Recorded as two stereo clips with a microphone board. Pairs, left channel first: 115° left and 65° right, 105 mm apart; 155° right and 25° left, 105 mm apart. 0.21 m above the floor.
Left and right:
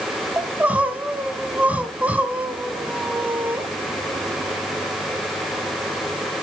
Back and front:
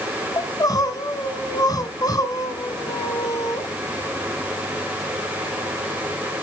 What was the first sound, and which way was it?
Crying, 135° right.